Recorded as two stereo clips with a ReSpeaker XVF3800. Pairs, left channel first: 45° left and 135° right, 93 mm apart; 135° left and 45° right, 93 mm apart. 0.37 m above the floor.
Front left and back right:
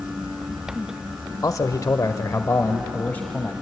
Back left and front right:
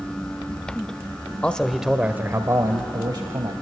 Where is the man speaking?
65° left, 1.0 m; by 3.5 s 25° right, 1.8 m.